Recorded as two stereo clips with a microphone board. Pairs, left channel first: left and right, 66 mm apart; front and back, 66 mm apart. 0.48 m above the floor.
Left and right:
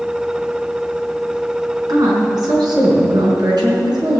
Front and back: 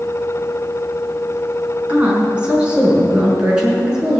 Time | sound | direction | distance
1.9 | a woman speaking | 110° right | 4 m